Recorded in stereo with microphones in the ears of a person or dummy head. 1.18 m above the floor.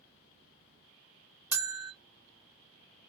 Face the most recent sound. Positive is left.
turn(degrees=-15)  # may be behind; listen again after turning